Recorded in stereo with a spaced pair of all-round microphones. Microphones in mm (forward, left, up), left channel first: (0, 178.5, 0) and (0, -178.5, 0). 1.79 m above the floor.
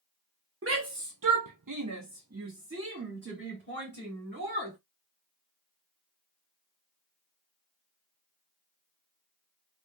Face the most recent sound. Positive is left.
turn(degrees=-25)  # may be behind; listen again after turning